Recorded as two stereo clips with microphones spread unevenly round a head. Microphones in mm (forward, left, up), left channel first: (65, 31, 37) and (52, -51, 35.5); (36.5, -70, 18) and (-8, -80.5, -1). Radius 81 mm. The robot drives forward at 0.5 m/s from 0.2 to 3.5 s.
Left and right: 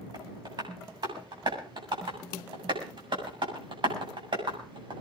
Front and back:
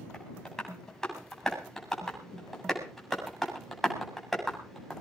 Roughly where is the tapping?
Ahead right.